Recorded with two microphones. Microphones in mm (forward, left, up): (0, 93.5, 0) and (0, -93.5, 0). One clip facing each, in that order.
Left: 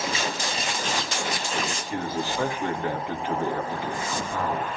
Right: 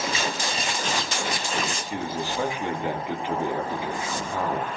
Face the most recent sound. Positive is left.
turn(degrees=-20)  # may be behind; listen again after turning